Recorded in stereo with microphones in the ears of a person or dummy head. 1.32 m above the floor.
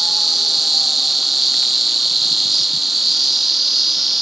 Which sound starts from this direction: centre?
An insect, at 0.0 s.